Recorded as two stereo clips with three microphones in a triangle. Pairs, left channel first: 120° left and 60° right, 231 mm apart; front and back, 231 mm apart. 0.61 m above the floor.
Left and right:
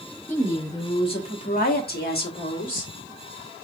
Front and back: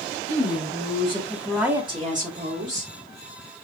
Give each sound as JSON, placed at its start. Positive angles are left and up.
{"t": 0.3, "sound": "a woman speaking", "azimuth_deg": 40, "distance_m": 2.0}